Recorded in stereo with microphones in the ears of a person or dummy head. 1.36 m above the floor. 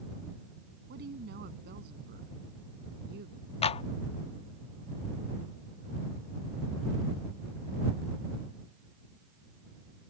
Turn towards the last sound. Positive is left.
turn(degrees=30)  # may be behind; listen again after turning